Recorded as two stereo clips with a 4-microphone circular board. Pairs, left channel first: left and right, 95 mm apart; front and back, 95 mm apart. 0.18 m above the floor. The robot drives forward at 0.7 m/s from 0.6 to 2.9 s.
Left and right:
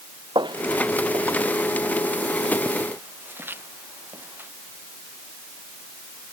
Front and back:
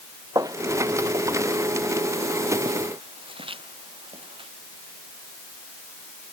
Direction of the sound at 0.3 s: 125° right.